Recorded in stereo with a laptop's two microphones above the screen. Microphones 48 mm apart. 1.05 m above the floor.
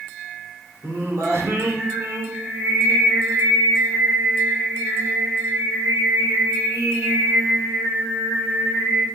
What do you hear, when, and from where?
0.8 s singing: 80° right, 2.5 m